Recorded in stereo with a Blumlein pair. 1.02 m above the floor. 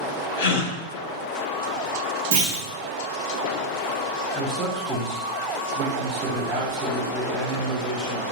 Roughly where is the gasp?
Ahead left.